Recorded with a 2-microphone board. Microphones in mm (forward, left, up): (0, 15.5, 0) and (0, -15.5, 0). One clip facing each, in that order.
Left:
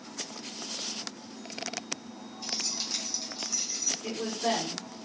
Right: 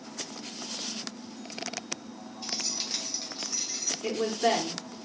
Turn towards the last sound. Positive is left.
turn(degrees=-35)  # may be behind; listen again after turning